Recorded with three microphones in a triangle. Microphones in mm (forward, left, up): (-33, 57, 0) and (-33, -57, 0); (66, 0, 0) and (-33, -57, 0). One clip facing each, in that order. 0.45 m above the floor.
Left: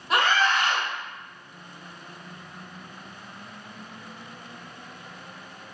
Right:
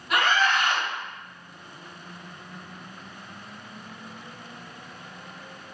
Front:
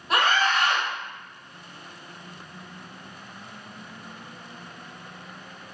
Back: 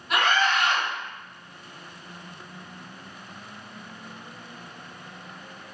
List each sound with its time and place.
0.1 s a scream: 55° left, 0.9 m